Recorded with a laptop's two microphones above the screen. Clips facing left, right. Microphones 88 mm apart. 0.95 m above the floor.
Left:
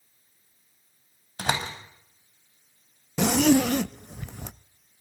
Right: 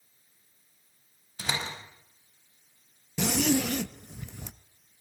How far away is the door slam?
About 5 m.